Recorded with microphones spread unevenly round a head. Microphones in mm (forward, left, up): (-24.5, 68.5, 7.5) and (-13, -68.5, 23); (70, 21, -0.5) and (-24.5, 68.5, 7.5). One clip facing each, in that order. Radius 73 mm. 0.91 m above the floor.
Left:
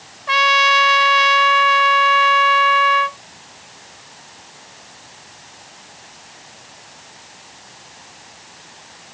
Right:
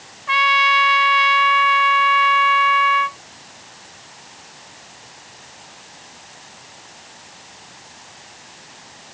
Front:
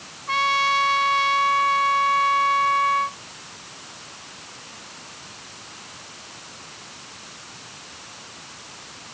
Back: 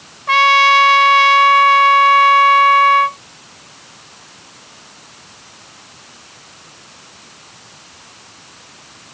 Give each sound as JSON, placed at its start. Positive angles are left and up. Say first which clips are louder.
{"t": 0.3, "sound": "a trumpet", "louder": "left 2 dB, back 10 dB", "azimuth_deg": 135}